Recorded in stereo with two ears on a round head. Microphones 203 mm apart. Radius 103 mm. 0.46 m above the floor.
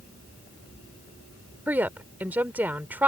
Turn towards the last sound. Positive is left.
turn(degrees=-10)  # may be behind; listen again after turning